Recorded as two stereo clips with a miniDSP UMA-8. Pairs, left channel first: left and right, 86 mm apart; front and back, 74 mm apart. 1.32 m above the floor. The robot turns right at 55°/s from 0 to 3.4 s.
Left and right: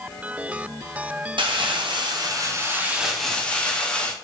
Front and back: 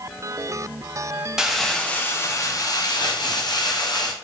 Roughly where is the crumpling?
Right.